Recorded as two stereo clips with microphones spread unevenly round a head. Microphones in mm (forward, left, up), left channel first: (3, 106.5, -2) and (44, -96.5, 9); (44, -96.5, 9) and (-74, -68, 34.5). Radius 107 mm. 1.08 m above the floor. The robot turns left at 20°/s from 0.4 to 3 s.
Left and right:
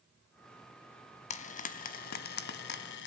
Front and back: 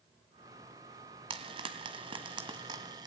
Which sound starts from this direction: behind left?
Frying, at 1.3 s.